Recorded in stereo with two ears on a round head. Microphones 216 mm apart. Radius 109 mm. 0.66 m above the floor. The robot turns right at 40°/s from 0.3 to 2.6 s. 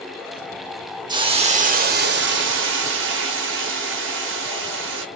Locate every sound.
1.1 s a hiss: 160° right, 0.9 m; by 5.0 s 100° right, 0.9 m